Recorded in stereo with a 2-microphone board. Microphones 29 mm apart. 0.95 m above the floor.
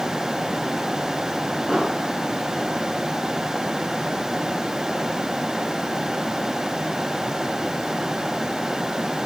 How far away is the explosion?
About 7.5 m.